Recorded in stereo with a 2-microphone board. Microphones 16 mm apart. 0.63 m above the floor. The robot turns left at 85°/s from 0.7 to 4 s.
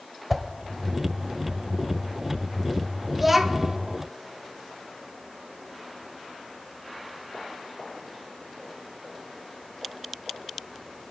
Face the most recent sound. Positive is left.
turn(degrees=-85)